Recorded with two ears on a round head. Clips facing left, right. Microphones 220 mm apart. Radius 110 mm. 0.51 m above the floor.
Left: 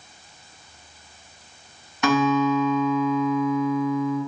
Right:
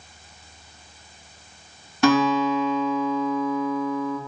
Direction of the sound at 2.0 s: 30° right (ahead or behind).